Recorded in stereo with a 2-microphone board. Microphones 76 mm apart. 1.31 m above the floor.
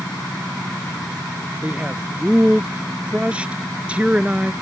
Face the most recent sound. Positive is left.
turn(degrees=-15)  # may be behind; listen again after turning